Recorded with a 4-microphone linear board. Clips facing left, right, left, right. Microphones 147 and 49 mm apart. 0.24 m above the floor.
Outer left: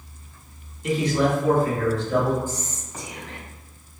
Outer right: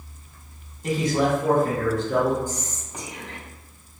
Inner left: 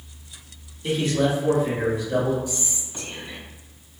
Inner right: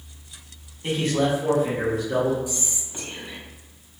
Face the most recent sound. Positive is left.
turn(degrees=-20)  # may be behind; listen again after turning